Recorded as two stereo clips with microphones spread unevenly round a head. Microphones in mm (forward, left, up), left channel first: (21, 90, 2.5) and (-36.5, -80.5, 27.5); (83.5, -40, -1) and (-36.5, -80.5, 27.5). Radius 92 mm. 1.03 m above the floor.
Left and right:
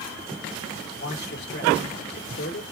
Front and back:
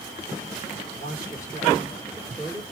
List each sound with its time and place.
0.9 s a man speaking: 85° left, 1.6 m